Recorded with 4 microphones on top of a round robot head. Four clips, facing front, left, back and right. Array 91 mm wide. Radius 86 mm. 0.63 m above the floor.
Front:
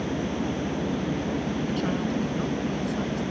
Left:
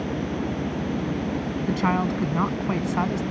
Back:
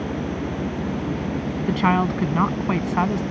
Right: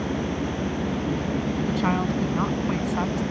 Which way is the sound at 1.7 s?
165° left.